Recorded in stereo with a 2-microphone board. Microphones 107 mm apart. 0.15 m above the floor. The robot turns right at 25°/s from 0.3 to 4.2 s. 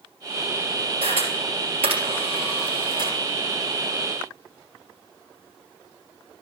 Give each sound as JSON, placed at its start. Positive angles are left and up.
{"t": 1.0, "sound": "a camera shutter", "side_deg": -65, "distance_m": 3.0}